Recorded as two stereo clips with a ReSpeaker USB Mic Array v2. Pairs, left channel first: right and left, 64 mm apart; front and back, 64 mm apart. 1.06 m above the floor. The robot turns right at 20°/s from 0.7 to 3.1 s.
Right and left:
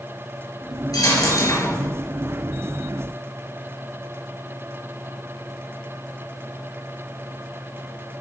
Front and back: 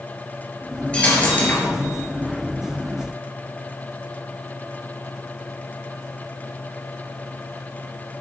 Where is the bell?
No bell in this recording.